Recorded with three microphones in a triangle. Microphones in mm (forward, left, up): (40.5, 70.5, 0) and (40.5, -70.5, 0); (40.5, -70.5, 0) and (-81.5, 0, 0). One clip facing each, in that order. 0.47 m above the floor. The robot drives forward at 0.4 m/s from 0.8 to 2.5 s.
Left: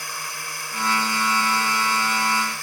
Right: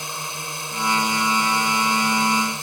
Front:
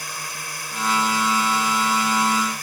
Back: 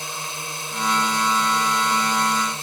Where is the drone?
150° right; by 2.6 s 155° right.